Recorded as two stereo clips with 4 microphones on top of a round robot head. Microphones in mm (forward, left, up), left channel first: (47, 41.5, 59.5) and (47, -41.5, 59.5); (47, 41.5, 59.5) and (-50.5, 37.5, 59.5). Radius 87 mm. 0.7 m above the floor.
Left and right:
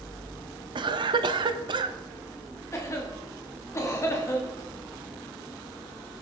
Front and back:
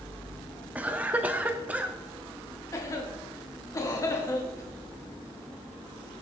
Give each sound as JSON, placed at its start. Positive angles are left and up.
{"t": 0.8, "sound": "a cough", "azimuth_deg": -100, "distance_m": 1.0}
{"t": 2.7, "sound": "a cough", "azimuth_deg": 50, "distance_m": 1.8}